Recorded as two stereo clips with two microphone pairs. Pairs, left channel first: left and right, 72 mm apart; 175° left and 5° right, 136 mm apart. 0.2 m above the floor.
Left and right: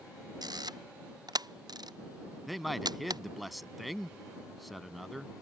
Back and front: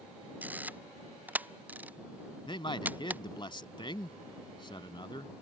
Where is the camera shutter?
80° right.